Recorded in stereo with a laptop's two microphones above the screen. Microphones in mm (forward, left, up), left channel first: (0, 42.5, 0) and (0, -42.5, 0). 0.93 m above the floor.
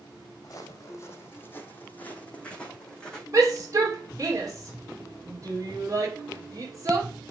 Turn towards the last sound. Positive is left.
turn(degrees=-40)  # may be behind; listen again after turning